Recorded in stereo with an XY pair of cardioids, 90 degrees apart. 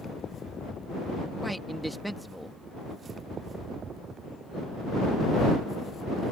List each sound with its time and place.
1.4 s a man speaking: 5° right